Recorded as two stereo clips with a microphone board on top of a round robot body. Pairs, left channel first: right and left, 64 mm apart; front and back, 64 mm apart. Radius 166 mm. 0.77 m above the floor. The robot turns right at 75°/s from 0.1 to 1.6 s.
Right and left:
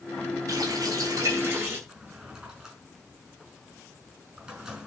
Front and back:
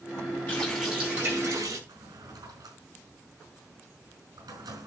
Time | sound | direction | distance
0.5 | a running tap | 65° left | 7.5 m
1.9 | a drawer | 165° left | 5 m